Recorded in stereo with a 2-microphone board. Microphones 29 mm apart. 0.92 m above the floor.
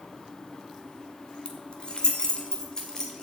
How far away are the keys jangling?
About 1.7 m.